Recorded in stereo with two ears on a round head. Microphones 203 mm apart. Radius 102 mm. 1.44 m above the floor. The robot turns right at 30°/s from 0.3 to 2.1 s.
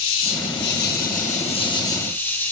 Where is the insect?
115° left, 1.5 m; by 2.5 s 170° left, 1.5 m.